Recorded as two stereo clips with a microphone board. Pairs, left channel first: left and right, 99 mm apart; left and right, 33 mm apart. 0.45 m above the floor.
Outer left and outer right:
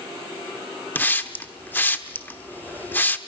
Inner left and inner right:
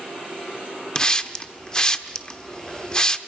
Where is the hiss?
20° left (ahead or behind), 0.8 m.